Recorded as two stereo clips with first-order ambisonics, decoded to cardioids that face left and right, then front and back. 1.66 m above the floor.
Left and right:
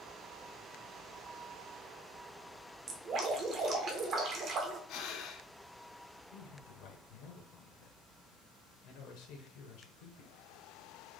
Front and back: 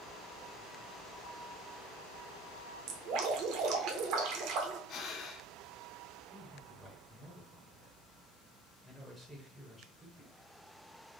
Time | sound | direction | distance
2.9 | dripping | 145° right | 1.0 m
4.9 | breathing | 50° left | 0.7 m
6.3 | a man speaking | 95° left | 1.7 m